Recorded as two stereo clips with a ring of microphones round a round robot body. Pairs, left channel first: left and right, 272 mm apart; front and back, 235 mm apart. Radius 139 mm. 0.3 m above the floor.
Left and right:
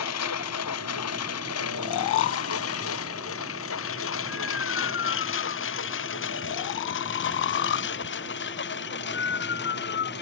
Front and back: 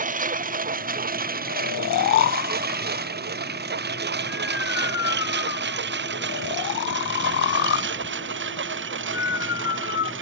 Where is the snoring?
40° left.